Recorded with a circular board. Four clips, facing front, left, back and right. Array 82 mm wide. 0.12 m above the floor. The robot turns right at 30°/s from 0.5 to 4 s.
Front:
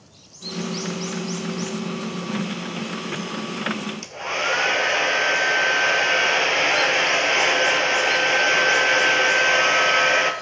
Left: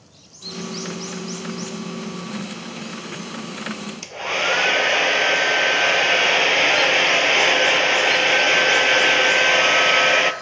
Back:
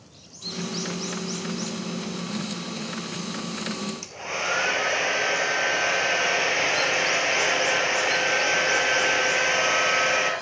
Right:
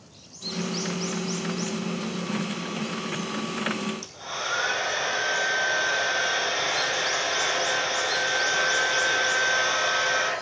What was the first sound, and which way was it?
A hair dryer, 80° left.